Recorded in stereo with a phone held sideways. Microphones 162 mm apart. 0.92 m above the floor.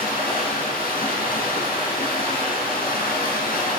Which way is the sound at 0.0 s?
70° left (ahead or behind).